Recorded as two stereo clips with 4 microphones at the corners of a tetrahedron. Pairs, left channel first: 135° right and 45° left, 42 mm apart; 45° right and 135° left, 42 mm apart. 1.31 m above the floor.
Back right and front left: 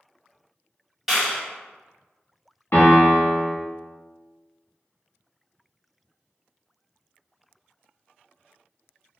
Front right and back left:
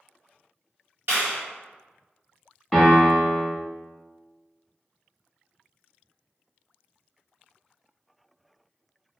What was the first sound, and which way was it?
A clap, 130° left.